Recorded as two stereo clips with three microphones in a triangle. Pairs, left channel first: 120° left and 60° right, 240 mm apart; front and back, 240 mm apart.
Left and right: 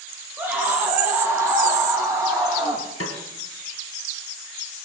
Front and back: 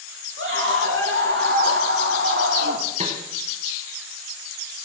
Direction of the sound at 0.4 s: 145° right.